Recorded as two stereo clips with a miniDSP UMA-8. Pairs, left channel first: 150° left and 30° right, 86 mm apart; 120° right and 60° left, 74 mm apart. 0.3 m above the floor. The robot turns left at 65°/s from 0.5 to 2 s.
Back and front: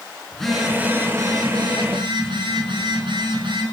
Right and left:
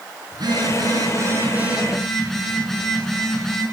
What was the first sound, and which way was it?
A phone buzzing, 65° left.